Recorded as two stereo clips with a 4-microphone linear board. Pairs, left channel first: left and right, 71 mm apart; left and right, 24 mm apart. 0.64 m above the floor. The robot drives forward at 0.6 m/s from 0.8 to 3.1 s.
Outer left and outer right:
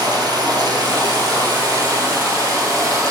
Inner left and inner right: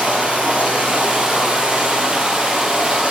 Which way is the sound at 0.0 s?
80° right.